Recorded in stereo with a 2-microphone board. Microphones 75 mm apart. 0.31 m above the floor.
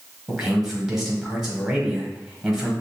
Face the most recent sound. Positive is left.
turn(degrees=-5)  # may be behind; listen again after turning